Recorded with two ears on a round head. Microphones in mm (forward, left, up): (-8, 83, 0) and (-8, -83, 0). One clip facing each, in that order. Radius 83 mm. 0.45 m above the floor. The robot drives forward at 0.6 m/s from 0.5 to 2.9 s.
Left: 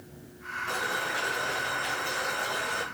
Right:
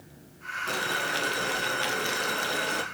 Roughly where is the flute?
I don't hear a flute.